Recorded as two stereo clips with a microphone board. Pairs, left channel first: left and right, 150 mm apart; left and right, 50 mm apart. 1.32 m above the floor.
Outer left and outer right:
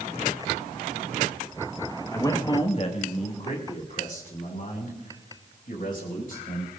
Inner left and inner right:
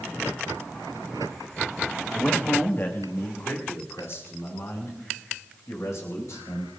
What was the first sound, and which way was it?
A man speaking, 15° left (ahead or behind).